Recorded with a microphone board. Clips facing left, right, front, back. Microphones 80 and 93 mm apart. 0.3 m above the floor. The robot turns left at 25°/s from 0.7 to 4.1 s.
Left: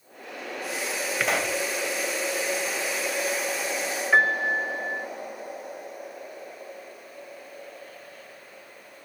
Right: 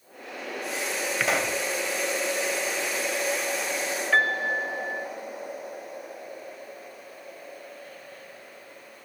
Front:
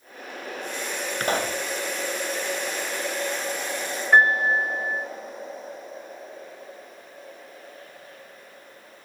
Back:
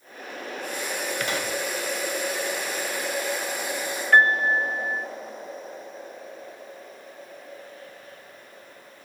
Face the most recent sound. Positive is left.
turn(degrees=45)